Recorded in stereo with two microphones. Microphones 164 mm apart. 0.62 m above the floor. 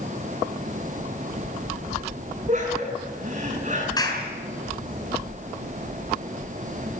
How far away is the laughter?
About 6.5 m.